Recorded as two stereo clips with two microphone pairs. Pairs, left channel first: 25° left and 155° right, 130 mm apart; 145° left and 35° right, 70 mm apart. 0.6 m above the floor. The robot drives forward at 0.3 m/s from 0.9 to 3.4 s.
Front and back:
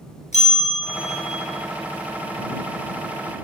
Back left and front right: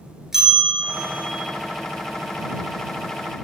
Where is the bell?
45° left, 2.5 m; by 1.4 s 50° left, 2.5 m.